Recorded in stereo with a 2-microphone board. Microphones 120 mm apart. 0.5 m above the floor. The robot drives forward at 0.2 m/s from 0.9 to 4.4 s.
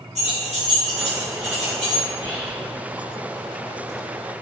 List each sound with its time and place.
0.1 s keys jangling: 65° right (ahead or behind), 1.8 m; by 2.0 s 70° right (ahead or behind), 1.7 m
2.1 s whispering: 35° right (ahead or behind), 1.4 m